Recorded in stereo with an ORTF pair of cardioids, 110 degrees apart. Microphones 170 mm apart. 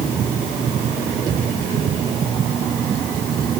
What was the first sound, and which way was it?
Only background noise.